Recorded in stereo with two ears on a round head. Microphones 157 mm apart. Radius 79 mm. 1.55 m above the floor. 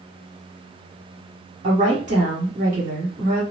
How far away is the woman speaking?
About 1.7 m.